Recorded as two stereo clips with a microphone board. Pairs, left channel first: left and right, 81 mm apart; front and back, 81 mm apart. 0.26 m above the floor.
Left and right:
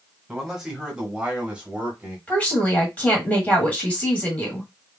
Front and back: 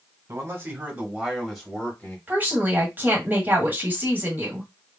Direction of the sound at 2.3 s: 145° left.